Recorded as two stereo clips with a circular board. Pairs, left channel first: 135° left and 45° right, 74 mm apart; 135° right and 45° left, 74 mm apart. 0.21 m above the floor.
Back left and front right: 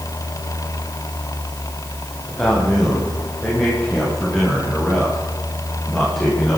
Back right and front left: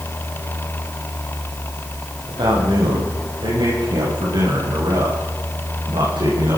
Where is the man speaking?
50° left, 9 m.